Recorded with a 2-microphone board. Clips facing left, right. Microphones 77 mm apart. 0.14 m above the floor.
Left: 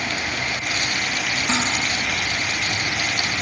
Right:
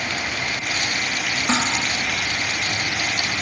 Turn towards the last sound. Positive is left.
turn(degrees=-30)  # may be behind; listen again after turning